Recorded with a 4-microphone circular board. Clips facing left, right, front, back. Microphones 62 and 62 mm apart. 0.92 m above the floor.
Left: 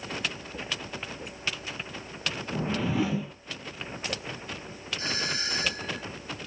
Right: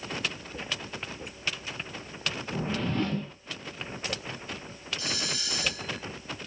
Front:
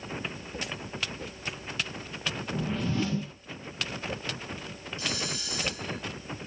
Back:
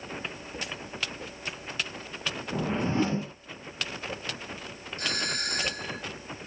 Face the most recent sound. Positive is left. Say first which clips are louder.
# left 3 dB, back 3 dB
turn(degrees=145)